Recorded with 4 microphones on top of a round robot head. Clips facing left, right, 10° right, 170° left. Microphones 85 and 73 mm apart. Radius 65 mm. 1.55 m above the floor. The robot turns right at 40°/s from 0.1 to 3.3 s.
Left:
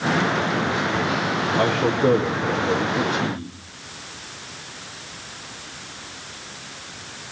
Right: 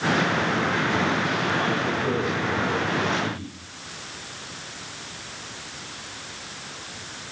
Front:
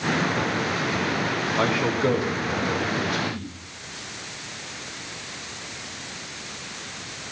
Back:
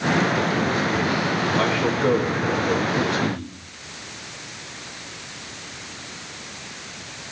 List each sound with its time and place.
1.6 s a man speaking: 60° left, 4 m; by 3.5 s 130° left, 4 m